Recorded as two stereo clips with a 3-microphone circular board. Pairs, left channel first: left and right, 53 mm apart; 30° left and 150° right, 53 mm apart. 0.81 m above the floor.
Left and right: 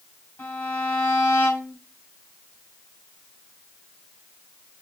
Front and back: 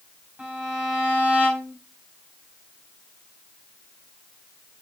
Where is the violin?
145° left, 6 m.